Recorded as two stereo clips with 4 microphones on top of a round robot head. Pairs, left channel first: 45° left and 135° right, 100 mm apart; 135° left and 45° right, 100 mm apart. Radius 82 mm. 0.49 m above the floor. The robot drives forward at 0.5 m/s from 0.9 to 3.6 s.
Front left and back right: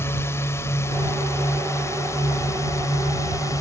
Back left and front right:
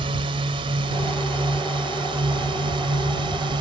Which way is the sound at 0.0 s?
20° right.